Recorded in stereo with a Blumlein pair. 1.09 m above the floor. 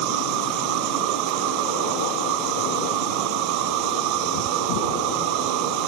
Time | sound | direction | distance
0.0 | an insect | 40° right | ?